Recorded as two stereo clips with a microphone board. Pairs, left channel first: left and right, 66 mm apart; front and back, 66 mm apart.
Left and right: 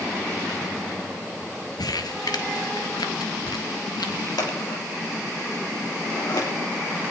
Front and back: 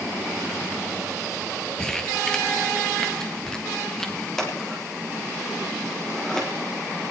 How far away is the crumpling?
About 1.8 m.